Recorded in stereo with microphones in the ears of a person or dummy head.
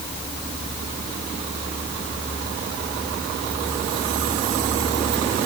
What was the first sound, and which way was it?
Only background noise.